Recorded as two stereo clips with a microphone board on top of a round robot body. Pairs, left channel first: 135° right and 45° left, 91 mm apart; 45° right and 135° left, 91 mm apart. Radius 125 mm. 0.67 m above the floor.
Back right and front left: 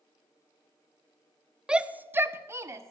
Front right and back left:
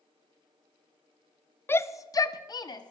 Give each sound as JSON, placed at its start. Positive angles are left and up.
{"t": 1.7, "sound": "a shout", "azimuth_deg": -25, "distance_m": 0.6}